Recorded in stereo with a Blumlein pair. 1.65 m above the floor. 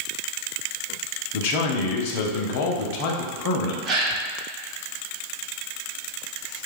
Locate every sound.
1.3 s a man speaking: 45° left, 0.6 m
3.9 s a gasp: 25° right, 1.2 m